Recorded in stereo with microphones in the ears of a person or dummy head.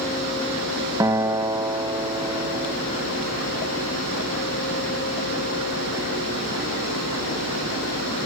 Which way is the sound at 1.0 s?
15° right (ahead or behind).